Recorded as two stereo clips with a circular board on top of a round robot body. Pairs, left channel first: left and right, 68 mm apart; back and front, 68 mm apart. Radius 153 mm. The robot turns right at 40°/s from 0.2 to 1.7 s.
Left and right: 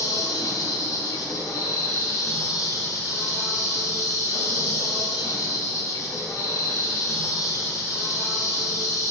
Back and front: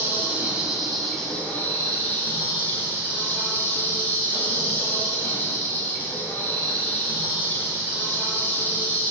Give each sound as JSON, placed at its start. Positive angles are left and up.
{"t": 0.0, "sound": "an insect", "azimuth_deg": 60, "distance_m": 0.8}